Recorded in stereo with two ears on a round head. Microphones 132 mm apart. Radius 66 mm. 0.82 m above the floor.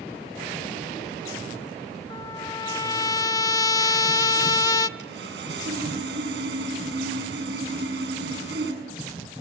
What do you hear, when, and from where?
2.1 s a trumpet: 25° left (ahead or behind), 0.8 m
5.0 s sawing: 85° right, 7.5 m